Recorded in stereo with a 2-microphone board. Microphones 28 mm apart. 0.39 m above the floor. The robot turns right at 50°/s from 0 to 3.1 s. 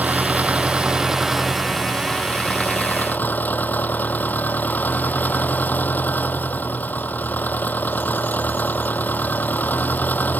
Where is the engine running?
80° right; by 10.4 s 75° left.